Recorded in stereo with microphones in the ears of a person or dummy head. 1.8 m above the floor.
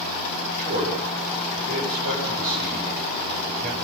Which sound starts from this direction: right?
A man speaking, at 0.6 s.